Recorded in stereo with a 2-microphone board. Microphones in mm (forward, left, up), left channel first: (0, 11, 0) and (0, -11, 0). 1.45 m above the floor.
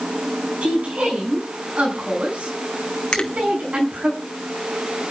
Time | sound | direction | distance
0.6 | a woman speaking | 70° right (ahead or behind) | 7.5 m
3.1 | a finger snap | 50° left (ahead or behind) | 2 m